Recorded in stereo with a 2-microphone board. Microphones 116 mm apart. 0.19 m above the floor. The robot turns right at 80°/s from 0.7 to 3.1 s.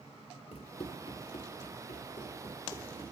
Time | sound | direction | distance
0.5 | running footsteps | 60° left (ahead or behind) | 1.1 m